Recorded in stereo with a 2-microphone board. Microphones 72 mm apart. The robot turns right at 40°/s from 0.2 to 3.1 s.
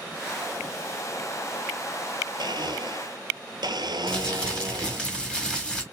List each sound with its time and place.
2.4 s a blender: 80° right, 1.1 m; by 5.1 s 70° right (ahead or behind), 1.1 m
4.1 s crumpling: 10° left (ahead or behind), 1.7 m